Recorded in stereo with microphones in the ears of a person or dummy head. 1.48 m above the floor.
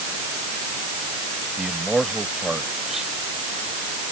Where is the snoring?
I don't hear snoring.